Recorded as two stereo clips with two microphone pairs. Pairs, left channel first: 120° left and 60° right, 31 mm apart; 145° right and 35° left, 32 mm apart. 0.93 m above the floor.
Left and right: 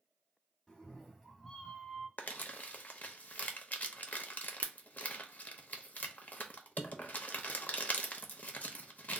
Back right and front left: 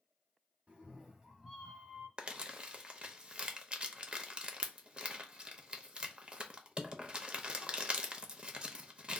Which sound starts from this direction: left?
Crumpling, at 2.2 s.